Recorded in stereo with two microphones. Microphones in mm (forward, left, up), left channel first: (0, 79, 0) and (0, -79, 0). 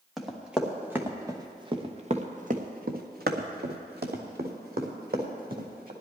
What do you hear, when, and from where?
0.2 s running footsteps: centre (ahead or behind), 2 m; by 5.9 s 65° right (ahead or behind), 3 m